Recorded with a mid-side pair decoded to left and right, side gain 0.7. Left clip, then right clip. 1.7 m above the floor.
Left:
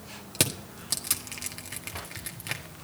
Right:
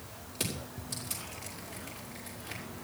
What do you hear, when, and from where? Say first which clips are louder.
0.3 s crushing: left 8 dB; 55° left, 1.5 m